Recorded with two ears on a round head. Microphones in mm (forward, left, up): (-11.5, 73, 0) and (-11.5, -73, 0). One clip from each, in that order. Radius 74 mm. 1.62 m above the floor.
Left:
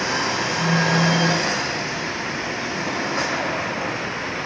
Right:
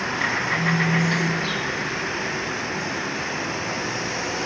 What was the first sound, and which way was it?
A phone buzzing, 15° right (ahead or behind).